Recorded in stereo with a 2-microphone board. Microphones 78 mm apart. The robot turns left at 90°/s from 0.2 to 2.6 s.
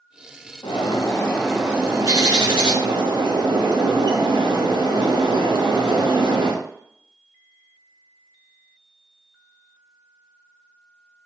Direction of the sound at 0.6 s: 85° left.